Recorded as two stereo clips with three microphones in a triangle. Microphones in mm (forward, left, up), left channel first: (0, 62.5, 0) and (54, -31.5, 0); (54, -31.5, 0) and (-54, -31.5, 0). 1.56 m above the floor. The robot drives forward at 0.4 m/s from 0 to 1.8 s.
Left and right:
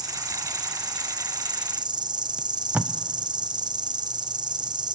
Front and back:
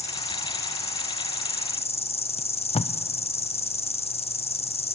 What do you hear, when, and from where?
0.0 s an insect: 5° right, 1.6 m; by 5.0 s 15° right, 1.0 m
2.4 s tape being pulled: 15° left, 0.6 m